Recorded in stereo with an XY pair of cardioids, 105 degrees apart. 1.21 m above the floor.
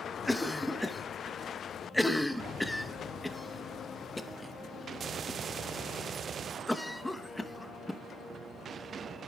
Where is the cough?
5° left, 0.9 m.